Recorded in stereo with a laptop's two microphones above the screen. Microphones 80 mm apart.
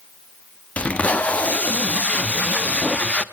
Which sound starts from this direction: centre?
Tape being pulled, at 0.8 s.